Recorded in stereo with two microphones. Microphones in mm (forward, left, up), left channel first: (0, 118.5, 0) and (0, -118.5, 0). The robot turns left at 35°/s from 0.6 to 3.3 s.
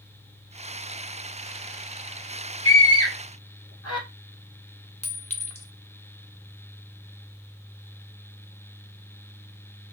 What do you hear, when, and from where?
2.6 s a scream: 60° left (ahead or behind), 1.9 m; by 4.0 s 85° left, 1.9 m
5.0 s a clink: 25° left (ahead or behind), 0.6 m